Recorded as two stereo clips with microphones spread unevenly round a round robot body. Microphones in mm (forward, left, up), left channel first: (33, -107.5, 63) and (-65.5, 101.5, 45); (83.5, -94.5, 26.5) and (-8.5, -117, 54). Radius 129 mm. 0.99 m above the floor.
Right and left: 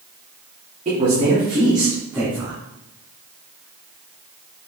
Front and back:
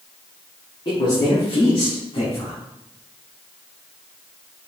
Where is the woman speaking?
55° left, 2.5 m; by 2.6 s 25° left, 3 m.